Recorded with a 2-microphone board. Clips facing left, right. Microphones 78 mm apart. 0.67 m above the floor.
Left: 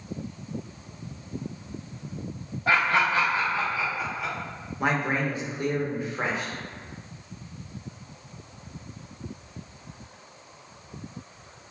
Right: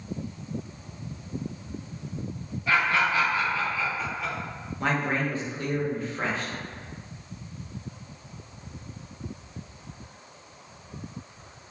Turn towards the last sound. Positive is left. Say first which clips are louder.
# left 1 dB
turn(degrees=20)  # may be behind; listen again after turning